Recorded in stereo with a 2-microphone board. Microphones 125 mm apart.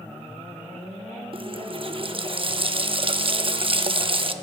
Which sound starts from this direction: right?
A running tap, at 1.3 s.